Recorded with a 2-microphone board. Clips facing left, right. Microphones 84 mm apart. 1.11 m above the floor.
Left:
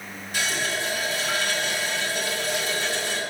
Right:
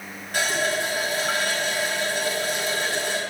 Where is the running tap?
50° right (ahead or behind), 4 m.